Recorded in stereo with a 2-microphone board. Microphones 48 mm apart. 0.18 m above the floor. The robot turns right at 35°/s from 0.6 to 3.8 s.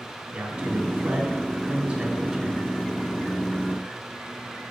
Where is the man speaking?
20° right (ahead or behind), 1.0 m; by 2.7 s 5° right (ahead or behind), 1.0 m.